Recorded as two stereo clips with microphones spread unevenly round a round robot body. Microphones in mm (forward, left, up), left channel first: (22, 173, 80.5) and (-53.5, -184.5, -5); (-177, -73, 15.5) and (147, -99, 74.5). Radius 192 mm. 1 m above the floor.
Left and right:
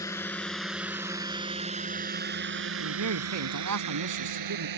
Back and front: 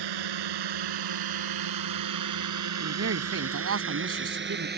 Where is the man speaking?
55° right.